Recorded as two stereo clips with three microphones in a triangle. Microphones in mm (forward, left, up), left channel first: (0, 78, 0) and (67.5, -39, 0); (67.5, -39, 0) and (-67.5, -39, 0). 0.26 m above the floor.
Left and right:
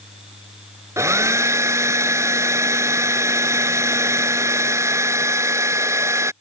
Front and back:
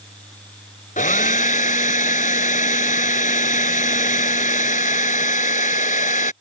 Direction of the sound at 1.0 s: 10° left.